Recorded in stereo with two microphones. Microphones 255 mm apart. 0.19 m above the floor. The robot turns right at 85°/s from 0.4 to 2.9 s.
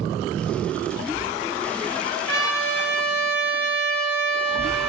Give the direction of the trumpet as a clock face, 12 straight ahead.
9 o'clock.